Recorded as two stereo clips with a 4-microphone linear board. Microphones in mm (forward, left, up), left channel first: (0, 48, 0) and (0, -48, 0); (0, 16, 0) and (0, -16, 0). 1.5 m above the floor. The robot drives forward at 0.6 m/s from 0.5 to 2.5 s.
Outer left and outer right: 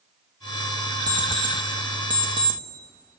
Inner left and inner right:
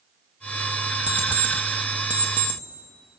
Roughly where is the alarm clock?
Right.